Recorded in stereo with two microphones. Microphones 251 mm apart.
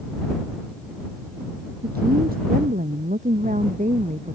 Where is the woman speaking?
40° right (ahead or behind); by 4.4 s 30° right (ahead or behind).